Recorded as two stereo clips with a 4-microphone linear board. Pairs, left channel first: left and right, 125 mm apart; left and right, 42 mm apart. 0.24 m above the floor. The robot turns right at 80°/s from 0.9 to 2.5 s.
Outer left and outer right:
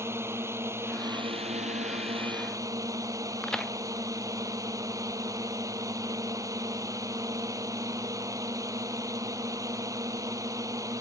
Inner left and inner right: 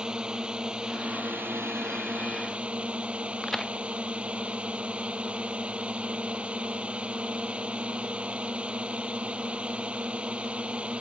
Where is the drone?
155° right; by 11.0 s 30° right.